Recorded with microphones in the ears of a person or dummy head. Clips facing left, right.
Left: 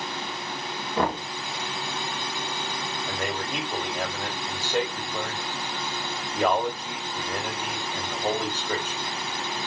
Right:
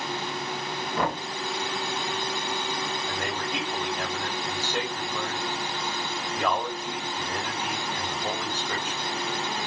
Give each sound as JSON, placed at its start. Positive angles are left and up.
{"t": 1.0, "sound": "knocking", "side_deg": 45, "distance_m": 1.6}
{"t": 3.1, "sound": "a man speaking", "side_deg": 55, "distance_m": 2.5}